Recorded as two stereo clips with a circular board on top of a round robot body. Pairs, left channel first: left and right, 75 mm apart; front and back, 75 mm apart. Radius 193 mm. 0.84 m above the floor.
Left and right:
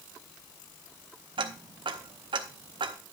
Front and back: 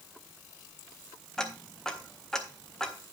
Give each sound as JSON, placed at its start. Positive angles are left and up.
{"t": 1.4, "sound": "ticking", "azimuth_deg": -85, "distance_m": 0.6}